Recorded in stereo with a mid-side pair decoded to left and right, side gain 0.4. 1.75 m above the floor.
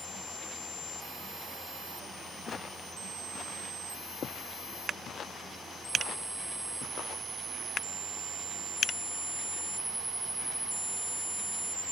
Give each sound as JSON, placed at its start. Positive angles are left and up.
{"t": 2.5, "sound": "footsteps", "azimuth_deg": 50}